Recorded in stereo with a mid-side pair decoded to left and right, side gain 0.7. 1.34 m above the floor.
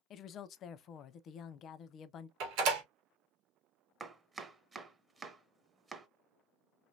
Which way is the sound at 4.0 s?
20° right.